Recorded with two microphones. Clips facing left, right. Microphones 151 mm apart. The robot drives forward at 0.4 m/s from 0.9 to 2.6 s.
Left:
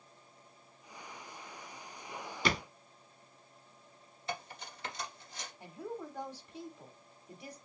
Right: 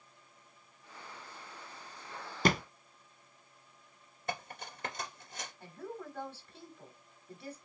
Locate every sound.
2.5 s a thud: 45° right (ahead or behind), 0.7 m
4.3 s cutlery clinking: 50° right (ahead or behind), 2.0 m
5.6 s a woman speaking: 15° left (ahead or behind), 1.0 m